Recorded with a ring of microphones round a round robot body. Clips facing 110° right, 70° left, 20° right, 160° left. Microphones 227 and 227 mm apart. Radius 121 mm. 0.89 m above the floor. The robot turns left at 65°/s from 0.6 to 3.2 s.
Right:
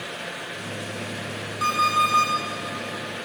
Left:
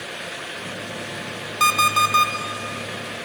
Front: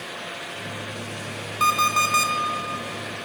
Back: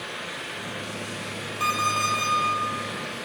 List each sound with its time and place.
1.6 s an alarm clock: 55° left, 1.4 m; by 2.3 s 5° left, 1.4 m